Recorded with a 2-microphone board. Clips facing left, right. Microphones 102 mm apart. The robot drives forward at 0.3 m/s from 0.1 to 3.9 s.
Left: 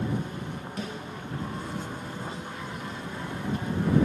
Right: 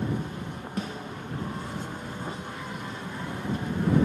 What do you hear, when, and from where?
0.8 s a snare drum: 40° right (ahead or behind), 1.5 m; by 1.1 s 35° right (ahead or behind), 1.6 m